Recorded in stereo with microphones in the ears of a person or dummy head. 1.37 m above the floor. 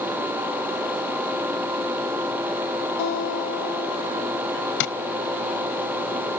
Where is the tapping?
65° left (ahead or behind).